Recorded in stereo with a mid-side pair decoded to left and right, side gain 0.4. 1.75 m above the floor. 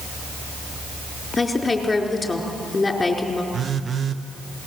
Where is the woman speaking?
25° left, 4.5 m.